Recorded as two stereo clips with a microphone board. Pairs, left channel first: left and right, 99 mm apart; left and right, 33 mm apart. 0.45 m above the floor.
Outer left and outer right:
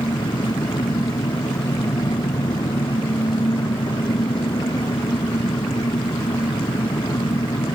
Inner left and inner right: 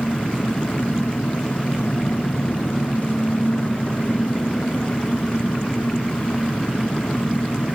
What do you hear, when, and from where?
0.0 s an engine running: 45° left (ahead or behind)